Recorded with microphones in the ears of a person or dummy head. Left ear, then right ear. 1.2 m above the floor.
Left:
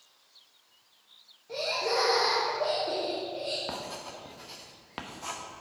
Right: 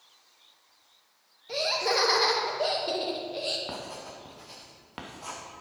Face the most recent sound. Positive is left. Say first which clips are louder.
# left 1 dB
turn(degrees=10)  # may be behind; listen again after turning